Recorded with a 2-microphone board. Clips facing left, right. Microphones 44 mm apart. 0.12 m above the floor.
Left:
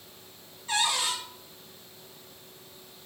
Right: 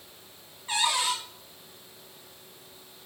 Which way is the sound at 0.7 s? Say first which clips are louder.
Right 1 dB; 20° right (ahead or behind).